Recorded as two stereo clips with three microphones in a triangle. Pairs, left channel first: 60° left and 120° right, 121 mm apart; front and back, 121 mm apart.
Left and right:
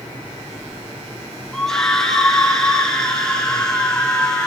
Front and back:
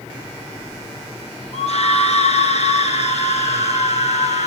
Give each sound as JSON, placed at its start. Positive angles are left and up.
{"t": 1.5, "sound": "a scream", "azimuth_deg": -25, "distance_m": 4.5}